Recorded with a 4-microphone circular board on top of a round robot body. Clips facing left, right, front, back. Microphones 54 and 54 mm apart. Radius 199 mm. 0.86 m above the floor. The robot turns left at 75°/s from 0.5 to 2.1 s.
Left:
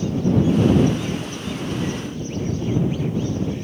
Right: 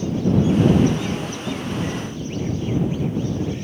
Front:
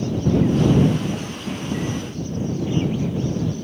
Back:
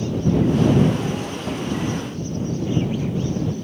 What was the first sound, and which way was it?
Only background noise.